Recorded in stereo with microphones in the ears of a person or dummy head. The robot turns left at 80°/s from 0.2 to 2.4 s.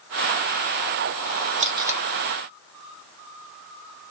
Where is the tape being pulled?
35° right (ahead or behind), 0.7 m; by 2.1 s centre (ahead or behind), 0.7 m.